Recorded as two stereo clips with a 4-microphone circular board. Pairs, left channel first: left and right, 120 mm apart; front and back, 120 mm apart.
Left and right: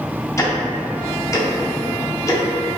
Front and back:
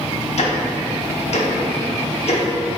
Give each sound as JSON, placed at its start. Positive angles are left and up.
{"t": 0.4, "sound": "ticking", "azimuth_deg": 25, "distance_m": 0.7}